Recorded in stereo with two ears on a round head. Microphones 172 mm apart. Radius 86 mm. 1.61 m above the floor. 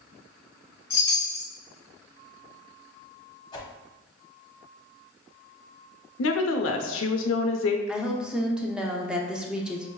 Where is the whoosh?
20° left (ahead or behind), 0.9 m.